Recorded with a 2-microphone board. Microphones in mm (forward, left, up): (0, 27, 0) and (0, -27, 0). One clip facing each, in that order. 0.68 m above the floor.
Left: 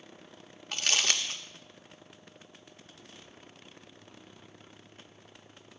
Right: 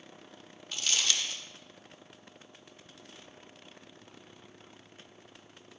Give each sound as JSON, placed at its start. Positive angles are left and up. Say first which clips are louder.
{"t": 0.7, "sound": "crumpling", "louder": "left 2 dB", "side_deg": 55, "distance_m": 0.7}